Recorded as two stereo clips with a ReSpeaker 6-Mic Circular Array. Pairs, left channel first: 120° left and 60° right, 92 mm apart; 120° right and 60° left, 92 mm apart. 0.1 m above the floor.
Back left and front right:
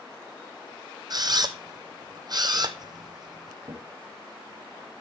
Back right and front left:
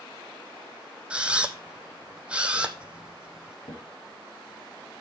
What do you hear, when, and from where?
1.1 s a camera shutter: 20° right, 0.9 m
3.6 s a drawer: 95° right, 2 m